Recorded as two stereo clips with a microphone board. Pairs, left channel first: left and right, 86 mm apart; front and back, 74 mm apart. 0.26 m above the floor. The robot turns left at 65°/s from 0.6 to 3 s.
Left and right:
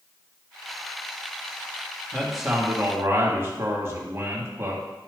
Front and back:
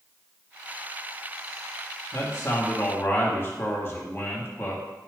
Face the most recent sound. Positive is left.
turn(degrees=-40)